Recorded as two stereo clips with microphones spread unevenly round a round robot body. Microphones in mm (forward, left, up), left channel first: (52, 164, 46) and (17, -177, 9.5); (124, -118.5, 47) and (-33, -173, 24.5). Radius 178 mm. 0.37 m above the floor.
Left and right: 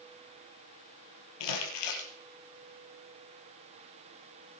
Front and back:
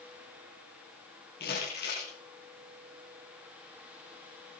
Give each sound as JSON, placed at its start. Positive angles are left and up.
{"t": 1.4, "sound": "crumpling", "azimuth_deg": 75, "distance_m": 5.0}